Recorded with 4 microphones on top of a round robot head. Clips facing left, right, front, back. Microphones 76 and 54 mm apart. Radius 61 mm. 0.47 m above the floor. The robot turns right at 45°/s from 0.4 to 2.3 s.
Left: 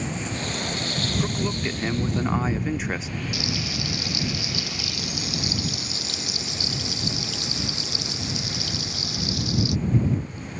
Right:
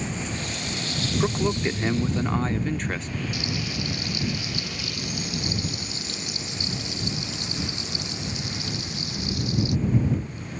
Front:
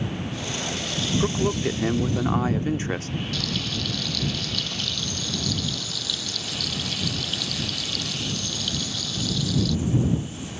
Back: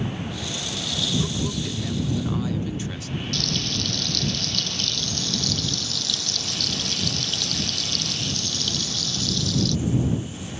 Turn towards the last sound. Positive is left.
turn(degrees=85)